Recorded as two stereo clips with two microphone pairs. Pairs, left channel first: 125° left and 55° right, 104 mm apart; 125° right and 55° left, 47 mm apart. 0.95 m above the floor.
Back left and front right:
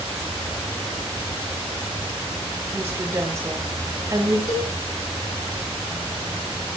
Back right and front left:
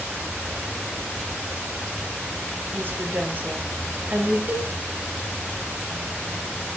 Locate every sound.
2.7 s a woman speaking: 15° left, 4 m; by 4.4 s 5° left, 4 m
4.5 s a cowbell: 100° left, 5.5 m